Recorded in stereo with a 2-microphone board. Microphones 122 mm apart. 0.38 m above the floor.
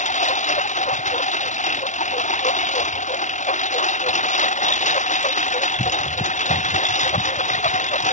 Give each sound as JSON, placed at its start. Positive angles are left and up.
{"t": 0.0, "sound": "a lawn mower", "side_deg": 85}